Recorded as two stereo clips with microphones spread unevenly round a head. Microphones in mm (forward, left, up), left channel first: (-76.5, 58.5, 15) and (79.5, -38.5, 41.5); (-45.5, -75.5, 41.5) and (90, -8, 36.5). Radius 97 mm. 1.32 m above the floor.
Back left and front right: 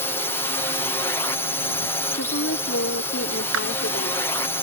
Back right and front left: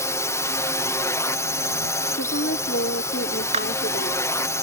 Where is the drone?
165° left.